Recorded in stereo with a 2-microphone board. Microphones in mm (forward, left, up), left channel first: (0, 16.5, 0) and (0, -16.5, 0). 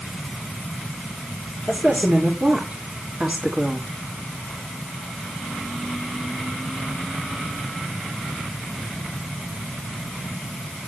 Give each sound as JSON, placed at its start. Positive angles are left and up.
{"t": 1.7, "sound": "a woman speaking", "side_deg": -55, "distance_m": 3.5}